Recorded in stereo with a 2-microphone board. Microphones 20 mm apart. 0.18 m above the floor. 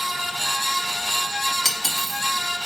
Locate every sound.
1.6 s cutlery clinking: 10° left (ahead or behind), 1.0 m